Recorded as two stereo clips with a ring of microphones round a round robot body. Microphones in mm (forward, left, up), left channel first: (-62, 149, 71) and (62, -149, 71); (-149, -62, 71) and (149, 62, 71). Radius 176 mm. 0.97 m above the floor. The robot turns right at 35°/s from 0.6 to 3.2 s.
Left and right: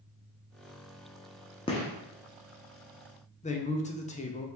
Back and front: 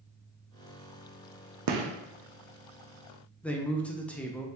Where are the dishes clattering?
I don't hear dishes clattering.